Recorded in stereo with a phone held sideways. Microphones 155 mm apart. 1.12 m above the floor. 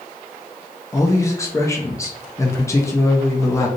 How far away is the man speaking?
About 0.6 m.